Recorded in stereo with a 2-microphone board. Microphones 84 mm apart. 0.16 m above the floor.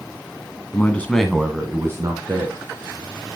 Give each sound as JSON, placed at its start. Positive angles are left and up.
{"t": 0.7, "sound": "a man speaking", "side_deg": 25, "distance_m": 1.2}